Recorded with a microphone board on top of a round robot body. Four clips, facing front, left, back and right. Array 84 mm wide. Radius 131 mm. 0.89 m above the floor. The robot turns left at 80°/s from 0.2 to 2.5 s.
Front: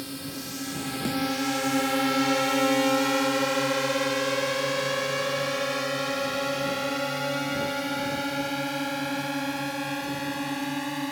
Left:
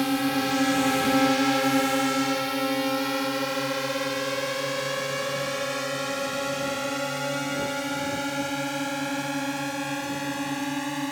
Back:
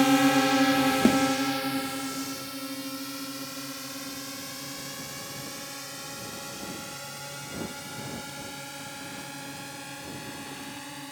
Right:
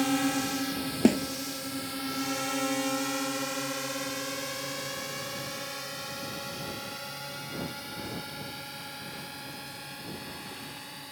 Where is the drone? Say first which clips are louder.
Left 3 dB, back 16 dB; 170° left; by 11.1 s 55° left.